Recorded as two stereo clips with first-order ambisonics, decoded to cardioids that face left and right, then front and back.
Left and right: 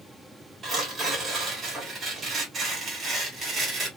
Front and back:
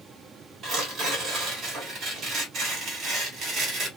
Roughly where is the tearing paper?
Behind right.